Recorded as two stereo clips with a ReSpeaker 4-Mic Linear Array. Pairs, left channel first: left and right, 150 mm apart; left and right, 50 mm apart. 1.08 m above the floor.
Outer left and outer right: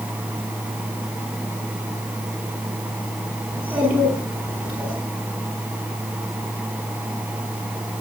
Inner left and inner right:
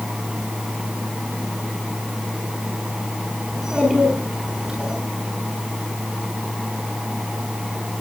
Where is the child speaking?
10° right (ahead or behind), 8 m.